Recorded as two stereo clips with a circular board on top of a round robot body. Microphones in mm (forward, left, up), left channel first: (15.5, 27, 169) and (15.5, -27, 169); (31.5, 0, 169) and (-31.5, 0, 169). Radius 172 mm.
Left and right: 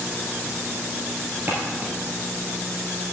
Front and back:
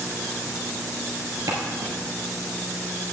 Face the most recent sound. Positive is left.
turn(degrees=-150)